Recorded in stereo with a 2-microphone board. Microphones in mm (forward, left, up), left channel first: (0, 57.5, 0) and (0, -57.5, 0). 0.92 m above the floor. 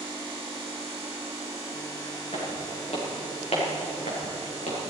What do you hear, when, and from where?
2.3 s footsteps: 55° left (ahead or behind), 7 m; by 4.8 s 70° left (ahead or behind), 6 m